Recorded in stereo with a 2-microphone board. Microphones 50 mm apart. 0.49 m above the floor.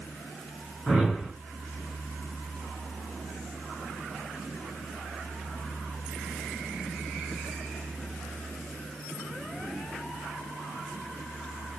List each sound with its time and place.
0.9 s a whoosh: 10° right (ahead or behind), 4 m